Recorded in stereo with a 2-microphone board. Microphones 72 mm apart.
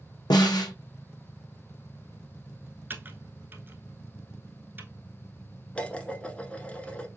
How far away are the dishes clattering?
About 0.8 m.